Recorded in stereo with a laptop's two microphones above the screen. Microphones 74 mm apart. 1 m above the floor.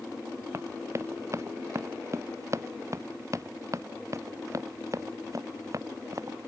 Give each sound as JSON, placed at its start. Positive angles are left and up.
{"t": 0.5, "sound": "running footsteps", "side_deg": -40}